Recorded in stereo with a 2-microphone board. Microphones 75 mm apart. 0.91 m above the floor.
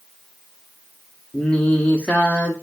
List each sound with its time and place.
1.3 s singing: 15° left (ahead or behind), 0.9 m